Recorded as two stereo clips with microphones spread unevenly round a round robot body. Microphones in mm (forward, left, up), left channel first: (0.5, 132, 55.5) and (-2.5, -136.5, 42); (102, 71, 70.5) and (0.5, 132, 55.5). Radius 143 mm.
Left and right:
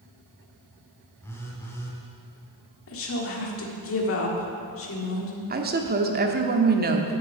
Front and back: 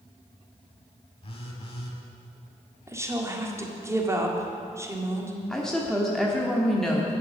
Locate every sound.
1.2 s a phone buzzing: 10° left, 1.6 m
2.9 s a woman speaking: 95° left, 1.8 m
5.5 s a woman speaking: 125° right, 1.1 m